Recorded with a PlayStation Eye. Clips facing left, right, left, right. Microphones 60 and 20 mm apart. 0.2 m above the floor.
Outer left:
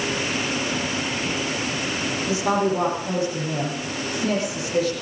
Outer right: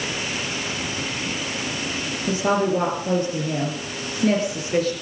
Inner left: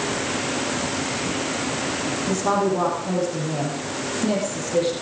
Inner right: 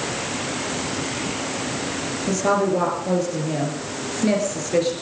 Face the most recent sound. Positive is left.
turn(degrees=-50)  # may be behind; listen again after turning